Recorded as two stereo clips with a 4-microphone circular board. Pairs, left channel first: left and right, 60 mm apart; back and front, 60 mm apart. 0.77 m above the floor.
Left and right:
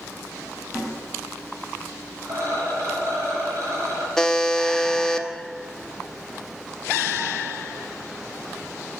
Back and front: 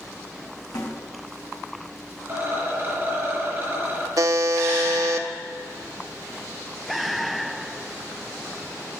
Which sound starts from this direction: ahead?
A buzzer, at 4.2 s.